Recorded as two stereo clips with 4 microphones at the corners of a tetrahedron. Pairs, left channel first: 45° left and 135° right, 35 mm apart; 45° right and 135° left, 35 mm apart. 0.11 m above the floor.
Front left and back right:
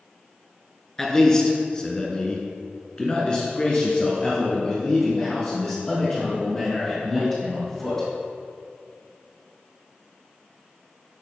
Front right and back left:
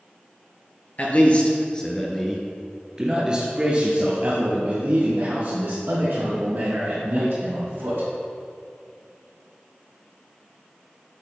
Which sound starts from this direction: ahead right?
A man speaking, at 1.0 s.